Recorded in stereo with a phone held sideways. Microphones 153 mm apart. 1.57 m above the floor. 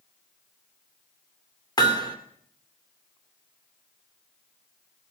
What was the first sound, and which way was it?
Hammering, 25° left (ahead or behind).